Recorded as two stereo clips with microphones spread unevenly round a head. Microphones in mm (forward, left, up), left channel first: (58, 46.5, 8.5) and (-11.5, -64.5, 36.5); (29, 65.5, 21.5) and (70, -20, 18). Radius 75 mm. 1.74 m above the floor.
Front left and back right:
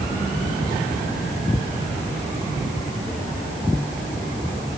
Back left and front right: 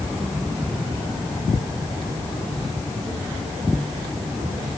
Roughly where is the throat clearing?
No throat clearing in this recording.